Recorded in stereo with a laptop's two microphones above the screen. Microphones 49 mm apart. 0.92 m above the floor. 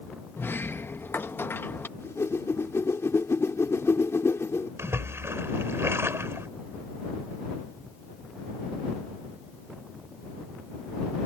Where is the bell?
No bell in this recording.